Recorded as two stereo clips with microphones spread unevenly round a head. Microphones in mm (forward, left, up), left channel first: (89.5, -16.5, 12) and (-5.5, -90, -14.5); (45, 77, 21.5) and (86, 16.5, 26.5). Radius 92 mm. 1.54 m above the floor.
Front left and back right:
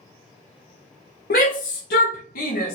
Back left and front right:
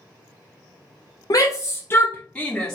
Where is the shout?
85° left, 0.9 m; by 2.8 s 45° left, 1.2 m.